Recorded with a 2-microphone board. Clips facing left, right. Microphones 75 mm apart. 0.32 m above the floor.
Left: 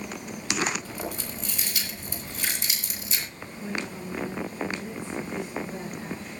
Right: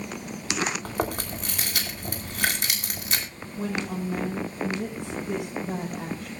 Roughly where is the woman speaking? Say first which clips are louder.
Right 4 dB; right.